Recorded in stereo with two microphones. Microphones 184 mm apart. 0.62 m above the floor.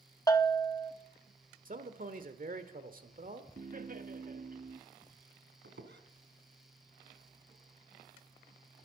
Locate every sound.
0.3 s a bell: 15° left (ahead or behind), 1.0 m
1.6 s a man speaking: 50° right (ahead or behind), 1.5 m
3.6 s laughter: 50° right (ahead or behind), 0.9 m
5.6 s a squeak: 80° right, 1.8 m